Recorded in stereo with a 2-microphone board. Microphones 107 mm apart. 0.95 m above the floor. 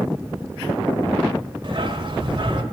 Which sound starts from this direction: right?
A dog barking, at 1.6 s.